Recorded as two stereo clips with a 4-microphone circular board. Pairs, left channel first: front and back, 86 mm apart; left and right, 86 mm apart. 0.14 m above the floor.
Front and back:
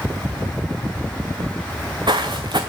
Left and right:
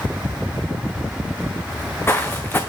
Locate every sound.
1.7 s footsteps: 155° left, 0.7 m